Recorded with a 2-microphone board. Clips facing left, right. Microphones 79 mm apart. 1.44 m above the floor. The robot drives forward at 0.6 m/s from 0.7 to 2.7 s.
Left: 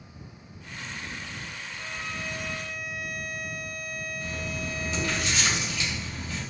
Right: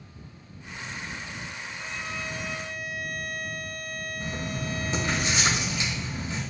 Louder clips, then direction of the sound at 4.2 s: Right 3 dB; 30° right (ahead or behind).